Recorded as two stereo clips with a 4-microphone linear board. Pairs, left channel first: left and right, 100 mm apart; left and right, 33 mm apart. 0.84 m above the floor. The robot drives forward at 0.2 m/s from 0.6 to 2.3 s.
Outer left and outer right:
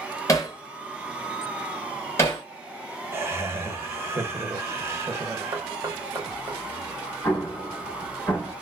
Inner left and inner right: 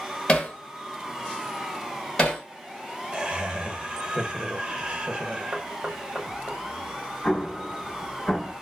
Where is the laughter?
25° right (ahead or behind), 0.9 m.